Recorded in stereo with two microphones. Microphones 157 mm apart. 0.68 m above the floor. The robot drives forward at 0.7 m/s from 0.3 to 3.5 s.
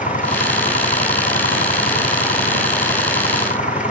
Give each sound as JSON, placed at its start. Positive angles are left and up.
{"t": 0.0, "sound": "an engine running", "side_deg": 55}